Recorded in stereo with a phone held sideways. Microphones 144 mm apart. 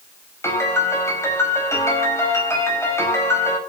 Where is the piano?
20° left (ahead or behind), 5 m.